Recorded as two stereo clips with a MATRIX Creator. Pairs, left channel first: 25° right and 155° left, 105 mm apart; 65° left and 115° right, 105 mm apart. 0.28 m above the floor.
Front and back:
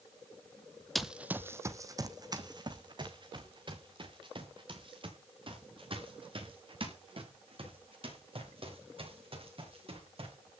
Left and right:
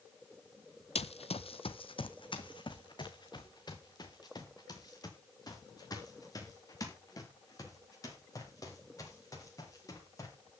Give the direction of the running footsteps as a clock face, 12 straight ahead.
10 o'clock.